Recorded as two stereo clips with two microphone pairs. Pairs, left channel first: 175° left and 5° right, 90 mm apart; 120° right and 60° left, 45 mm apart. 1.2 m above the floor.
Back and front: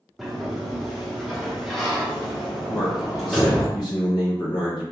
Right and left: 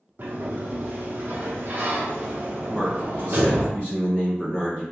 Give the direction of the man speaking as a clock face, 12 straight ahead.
6 o'clock.